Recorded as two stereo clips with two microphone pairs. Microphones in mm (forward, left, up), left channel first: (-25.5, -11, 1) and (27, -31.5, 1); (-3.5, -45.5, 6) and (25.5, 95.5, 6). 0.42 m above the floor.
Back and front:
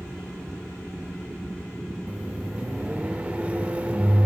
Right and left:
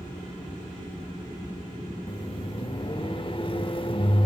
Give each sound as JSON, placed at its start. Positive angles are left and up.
{"t": 2.1, "sound": "a microwave", "azimuth_deg": -75, "distance_m": 0.7}